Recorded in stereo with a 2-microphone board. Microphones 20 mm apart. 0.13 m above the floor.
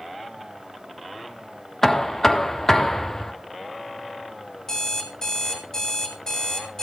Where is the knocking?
25° left (ahead or behind), 1.0 m.